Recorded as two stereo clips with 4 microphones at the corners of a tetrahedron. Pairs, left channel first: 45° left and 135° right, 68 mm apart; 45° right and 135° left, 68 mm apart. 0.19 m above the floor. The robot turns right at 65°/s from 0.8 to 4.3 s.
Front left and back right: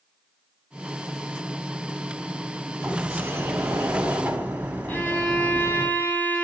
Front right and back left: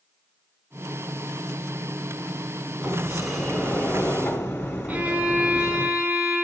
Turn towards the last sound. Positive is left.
turn(degrees=85)